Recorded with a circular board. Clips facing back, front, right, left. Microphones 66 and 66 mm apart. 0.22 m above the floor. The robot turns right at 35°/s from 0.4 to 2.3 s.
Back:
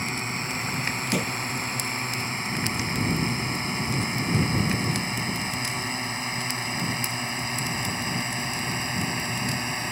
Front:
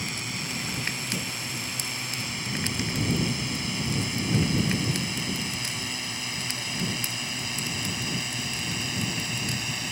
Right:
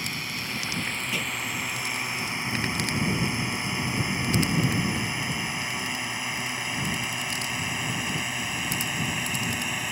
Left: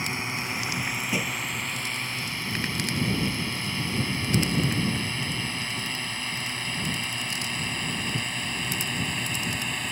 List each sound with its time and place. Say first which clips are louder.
0.0 s a drone: back 4 dB, left 3 dB; 145° left; by 9.9 s 170° right
1.1 s a thud: back 6 dB, left 3 dB; 160° left; by 1.4 s 170° left